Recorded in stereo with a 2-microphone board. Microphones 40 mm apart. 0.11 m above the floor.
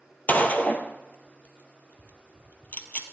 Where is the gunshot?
40° left (ahead or behind), 1.4 m.